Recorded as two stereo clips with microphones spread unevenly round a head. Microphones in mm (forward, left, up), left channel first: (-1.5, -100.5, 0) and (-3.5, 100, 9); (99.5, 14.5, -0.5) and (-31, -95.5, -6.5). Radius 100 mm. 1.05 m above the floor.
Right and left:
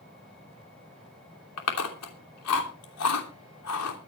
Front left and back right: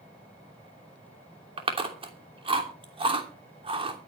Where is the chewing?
80° right, 3 m.